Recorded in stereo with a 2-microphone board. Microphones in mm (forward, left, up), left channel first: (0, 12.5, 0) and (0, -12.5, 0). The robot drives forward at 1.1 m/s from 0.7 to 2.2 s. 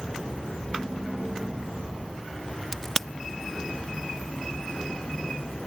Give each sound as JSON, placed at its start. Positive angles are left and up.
{"t": 2.7, "sound": "a crack", "side_deg": 15}